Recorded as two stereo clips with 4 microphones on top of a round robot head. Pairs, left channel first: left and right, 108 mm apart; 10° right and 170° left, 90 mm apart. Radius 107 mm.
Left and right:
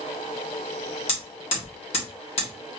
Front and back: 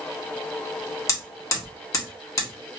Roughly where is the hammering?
Ahead left.